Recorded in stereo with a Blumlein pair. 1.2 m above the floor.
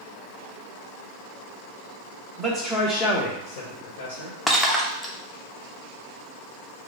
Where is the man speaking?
15° right, 0.8 m; by 4.4 s 75° left, 1.3 m.